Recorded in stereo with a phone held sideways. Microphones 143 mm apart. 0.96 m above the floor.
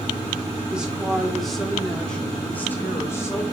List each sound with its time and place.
0.7 s a woman speaking: 5° right (ahead or behind), 3 m; by 3.4 s 25° left (ahead or behind), 2.5 m